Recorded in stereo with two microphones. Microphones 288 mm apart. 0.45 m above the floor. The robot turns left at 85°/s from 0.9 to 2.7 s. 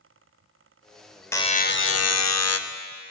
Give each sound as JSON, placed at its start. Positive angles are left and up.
{"t": 1.3, "sound": "a buzzer", "azimuth_deg": 170, "distance_m": 0.6}